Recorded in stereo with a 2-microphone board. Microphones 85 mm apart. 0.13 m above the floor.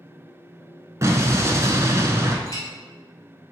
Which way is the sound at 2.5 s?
45° left (ahead or behind).